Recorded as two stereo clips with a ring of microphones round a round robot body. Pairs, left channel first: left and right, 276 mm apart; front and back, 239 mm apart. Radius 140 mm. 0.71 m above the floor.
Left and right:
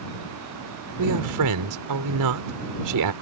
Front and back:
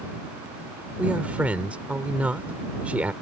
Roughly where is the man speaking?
Right.